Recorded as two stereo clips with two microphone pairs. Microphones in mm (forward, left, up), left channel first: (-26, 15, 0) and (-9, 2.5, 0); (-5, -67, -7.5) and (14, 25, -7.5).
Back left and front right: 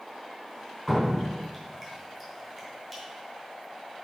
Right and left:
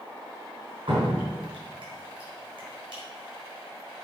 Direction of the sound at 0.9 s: 65° left.